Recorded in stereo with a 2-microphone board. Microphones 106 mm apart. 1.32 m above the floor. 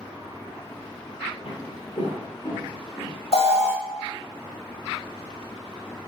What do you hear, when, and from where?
1.4 s footsteps: 55° left (ahead or behind), 2 m; by 3.1 s 30° left (ahead or behind), 2.5 m
3.3 s an alarm: 80° left, 1.5 m